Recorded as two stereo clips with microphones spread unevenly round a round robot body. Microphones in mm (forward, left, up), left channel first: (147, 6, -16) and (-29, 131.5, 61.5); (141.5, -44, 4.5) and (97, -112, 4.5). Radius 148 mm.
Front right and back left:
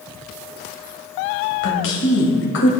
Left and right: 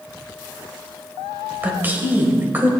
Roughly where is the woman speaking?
Ahead right.